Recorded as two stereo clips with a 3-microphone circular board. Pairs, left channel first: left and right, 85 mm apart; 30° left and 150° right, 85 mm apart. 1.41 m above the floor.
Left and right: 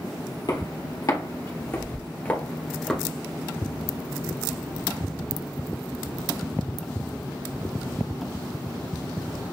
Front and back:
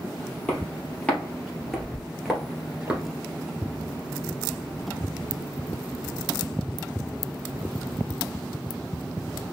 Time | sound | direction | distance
0.5 | footsteps | 95° left | 2 m